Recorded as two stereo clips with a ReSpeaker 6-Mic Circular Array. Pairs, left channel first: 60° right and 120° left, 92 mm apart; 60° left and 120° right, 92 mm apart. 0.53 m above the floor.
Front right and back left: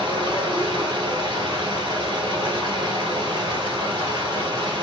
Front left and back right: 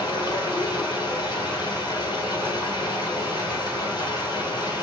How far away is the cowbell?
No cowbell in this recording.